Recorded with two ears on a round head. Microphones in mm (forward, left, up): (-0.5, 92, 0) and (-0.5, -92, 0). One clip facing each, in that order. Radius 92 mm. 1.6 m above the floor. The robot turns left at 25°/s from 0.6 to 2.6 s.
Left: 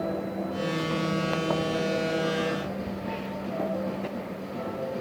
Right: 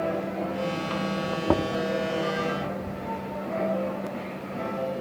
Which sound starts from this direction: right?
Knocking, at 1.5 s.